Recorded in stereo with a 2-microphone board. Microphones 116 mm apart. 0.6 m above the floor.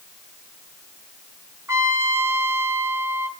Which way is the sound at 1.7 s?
25° right (ahead or behind).